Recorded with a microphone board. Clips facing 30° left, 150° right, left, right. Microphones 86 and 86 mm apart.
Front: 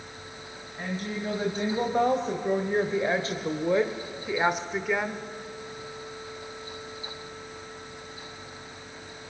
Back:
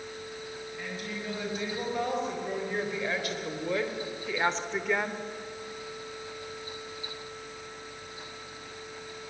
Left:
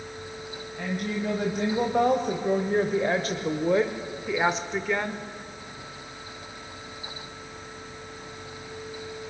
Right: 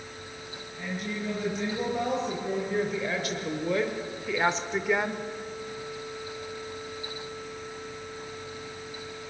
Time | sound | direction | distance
0.8 | a woman speaking | 80° left | 3 m